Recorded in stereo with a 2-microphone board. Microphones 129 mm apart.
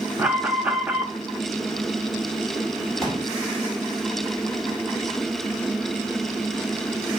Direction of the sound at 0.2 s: 10° right (ahead or behind).